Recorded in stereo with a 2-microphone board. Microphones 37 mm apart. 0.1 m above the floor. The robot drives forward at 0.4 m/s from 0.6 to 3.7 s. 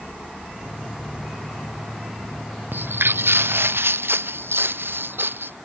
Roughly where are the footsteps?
Right.